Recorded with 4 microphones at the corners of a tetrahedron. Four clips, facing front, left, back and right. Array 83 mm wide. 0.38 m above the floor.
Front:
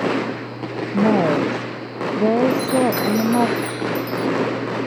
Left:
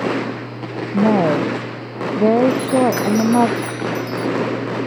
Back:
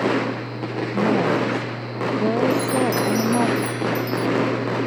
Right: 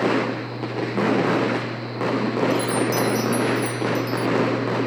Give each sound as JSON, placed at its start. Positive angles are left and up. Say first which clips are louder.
{"t": 0.9, "sound": "a woman speaking", "louder": "left 5 dB, front 3 dB", "azimuth_deg": 65}
{"t": 2.5, "sound": "a chime", "louder": "left 5 dB, front 2 dB", "azimuth_deg": 75}